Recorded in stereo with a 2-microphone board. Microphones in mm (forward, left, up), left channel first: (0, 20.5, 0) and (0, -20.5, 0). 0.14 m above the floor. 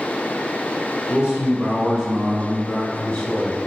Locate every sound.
1.1 s a man speaking: 25° right (ahead or behind), 1.5 m; by 3.6 s 25° left (ahead or behind), 1.4 m